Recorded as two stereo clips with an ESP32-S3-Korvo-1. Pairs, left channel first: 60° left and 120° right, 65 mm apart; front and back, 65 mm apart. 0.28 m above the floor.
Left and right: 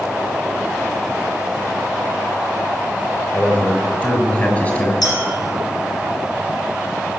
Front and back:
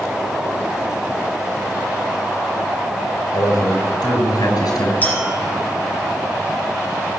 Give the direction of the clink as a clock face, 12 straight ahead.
10 o'clock.